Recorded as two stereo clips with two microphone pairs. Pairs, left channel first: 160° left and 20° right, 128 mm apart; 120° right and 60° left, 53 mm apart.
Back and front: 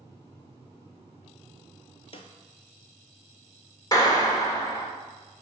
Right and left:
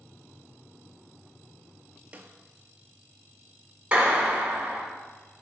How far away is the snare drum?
About 0.7 m.